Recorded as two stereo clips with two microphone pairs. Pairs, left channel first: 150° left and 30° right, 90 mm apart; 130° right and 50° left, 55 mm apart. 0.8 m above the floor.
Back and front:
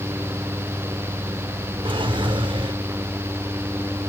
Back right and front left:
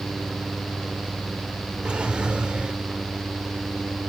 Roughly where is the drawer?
Ahead.